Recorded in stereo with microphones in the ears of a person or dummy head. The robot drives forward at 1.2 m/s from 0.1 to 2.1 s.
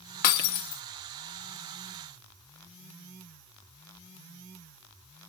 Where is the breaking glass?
55° left (ahead or behind), 1.3 m; by 0.8 s 60° left (ahead or behind), 1.3 m.